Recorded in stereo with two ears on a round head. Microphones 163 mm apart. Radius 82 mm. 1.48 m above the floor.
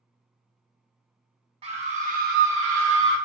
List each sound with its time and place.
1.6 s a scream: 30° right (ahead or behind), 0.9 m; by 3.2 s 60° right (ahead or behind), 0.6 m